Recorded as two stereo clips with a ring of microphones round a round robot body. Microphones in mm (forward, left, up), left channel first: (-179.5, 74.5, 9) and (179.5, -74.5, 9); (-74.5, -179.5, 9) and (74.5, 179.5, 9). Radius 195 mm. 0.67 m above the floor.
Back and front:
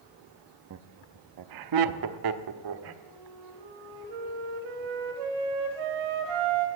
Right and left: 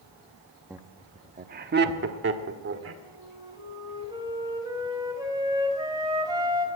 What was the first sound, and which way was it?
Laughter, 15° right.